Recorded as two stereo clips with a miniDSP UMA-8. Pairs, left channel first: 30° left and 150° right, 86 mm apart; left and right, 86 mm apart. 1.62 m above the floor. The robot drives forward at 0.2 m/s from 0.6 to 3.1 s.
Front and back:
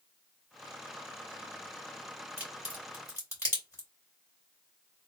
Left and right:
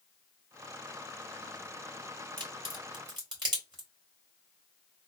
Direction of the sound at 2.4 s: 75° right.